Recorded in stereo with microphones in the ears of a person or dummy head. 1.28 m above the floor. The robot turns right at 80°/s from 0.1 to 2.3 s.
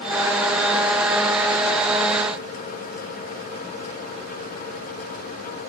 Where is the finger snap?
I don't hear a finger snap.